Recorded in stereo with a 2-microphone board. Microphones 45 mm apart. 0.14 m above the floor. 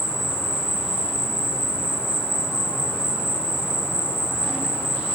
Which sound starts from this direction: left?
An insect, at 0.0 s.